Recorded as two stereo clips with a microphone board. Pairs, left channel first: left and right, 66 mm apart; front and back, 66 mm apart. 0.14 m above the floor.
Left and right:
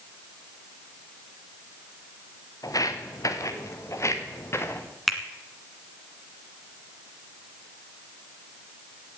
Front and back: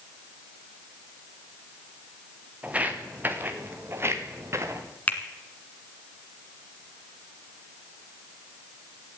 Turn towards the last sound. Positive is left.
turn(degrees=5)